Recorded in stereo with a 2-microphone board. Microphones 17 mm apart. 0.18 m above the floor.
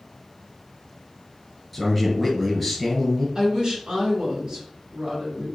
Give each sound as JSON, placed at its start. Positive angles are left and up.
{"t": 1.7, "sound": "a man speaking", "side_deg": -5, "distance_m": 1.7}
{"t": 3.4, "sound": "a woman speaking", "side_deg": -55, "distance_m": 2.0}